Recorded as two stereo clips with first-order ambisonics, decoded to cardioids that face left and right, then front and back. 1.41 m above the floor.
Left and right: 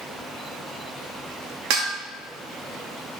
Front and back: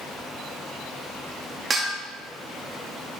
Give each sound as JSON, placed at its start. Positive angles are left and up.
{"t": 1.7, "sound": "dishes clattering", "azimuth_deg": -110, "distance_m": 1.8}